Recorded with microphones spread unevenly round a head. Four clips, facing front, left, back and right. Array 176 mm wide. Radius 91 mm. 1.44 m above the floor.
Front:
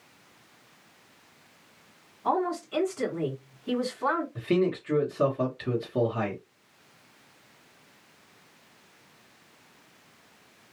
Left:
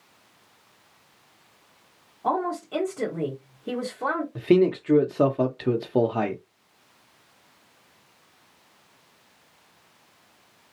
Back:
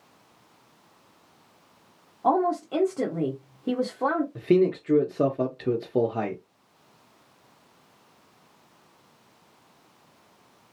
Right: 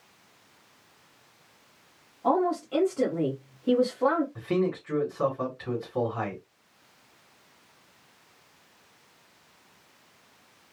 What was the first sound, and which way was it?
A woman speaking, 175° left.